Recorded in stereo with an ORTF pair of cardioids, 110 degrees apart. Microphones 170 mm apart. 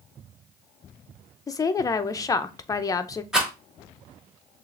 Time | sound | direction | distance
1.5 | a woman speaking | 20° left | 0.5 m
3.3 | a rattle | 5° right | 1.8 m